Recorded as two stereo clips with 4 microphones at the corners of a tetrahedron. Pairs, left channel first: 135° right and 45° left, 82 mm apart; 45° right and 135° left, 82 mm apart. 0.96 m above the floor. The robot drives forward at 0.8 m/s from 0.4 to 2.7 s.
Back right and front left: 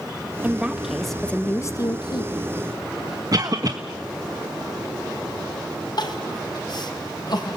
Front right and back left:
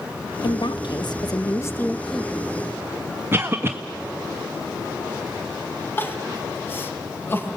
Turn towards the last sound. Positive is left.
turn(degrees=-105)